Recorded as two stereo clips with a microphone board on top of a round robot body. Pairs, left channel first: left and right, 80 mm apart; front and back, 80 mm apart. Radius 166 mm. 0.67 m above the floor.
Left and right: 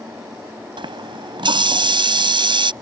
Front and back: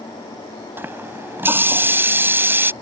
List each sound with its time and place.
0.8 s a running tap: 115° right